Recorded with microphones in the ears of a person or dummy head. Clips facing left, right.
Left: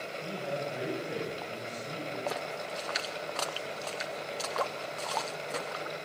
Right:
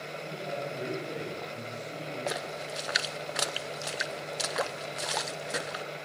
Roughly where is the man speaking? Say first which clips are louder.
Left 1 dB; centre.